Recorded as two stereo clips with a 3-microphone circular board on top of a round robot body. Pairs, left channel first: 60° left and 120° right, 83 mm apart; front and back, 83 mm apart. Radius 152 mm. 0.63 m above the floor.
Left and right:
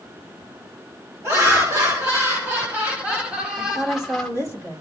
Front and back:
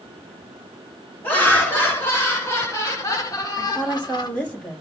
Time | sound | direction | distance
1.2 | laughter | 65° right | 3 m
3.6 | a woman speaking | 70° right | 3.5 m